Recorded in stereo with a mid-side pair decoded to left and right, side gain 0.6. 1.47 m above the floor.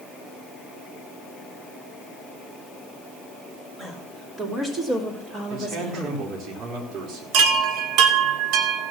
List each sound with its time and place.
3.8 s a woman speaking: 25° right, 4.5 m; by 6.2 s 50° right, 4 m
5.5 s a man speaking: 55° right, 4.5 m
7.3 s a chime: 70° right, 1.6 m